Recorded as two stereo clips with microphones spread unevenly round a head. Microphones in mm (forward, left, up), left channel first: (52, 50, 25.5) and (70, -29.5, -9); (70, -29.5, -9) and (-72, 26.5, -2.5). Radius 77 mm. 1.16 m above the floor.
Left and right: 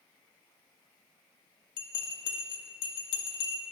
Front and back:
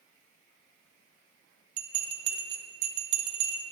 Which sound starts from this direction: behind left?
A bell, at 1.8 s.